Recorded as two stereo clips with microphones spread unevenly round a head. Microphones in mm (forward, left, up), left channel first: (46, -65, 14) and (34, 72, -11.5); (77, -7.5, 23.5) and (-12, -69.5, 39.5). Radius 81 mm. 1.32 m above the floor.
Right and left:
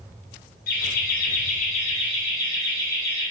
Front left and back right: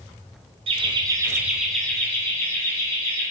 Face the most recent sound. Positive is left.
turn(degrees=-15)